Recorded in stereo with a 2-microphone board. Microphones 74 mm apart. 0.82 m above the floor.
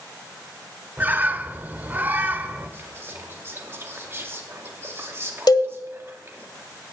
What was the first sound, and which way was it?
A bird, 25° right (ahead or behind).